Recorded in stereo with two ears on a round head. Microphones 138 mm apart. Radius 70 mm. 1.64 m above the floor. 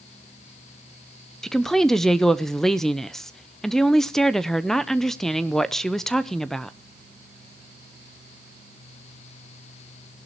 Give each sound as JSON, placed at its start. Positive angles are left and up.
{"t": 1.4, "sound": "a woman speaking", "side_deg": 0, "distance_m": 0.7}